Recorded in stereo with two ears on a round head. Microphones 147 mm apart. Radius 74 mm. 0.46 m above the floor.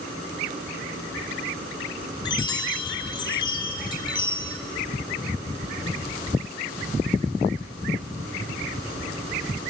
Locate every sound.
2.2 s a chime: 30° left (ahead or behind), 1.7 m